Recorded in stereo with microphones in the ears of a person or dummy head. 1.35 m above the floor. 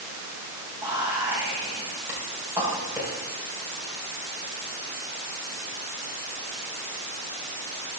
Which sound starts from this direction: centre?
Whispering, at 0.8 s.